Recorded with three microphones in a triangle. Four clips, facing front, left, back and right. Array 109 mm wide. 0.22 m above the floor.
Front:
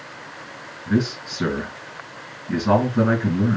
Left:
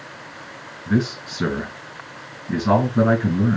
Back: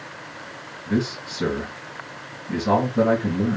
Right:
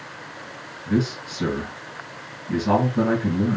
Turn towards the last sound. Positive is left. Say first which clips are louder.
# left 2 dB, front 2 dB
turn(degrees=65)